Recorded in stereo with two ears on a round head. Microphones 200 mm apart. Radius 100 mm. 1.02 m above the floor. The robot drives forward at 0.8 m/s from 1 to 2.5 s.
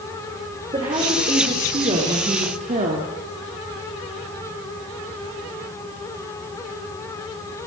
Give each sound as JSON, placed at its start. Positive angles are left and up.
{"t": 0.7, "sound": "a woman speaking", "side_deg": -20, "distance_m": 4.0}